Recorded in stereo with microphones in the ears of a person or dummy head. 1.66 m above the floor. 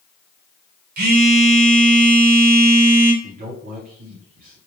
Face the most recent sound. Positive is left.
turn(degrees=-40)  # may be behind; listen again after turning